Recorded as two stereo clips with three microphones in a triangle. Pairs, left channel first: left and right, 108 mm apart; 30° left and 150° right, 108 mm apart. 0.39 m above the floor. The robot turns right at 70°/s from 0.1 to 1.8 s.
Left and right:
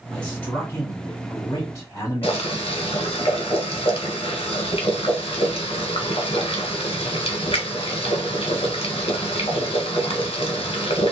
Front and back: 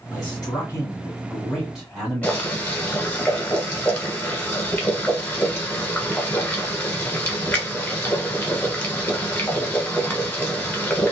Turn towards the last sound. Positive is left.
turn(degrees=100)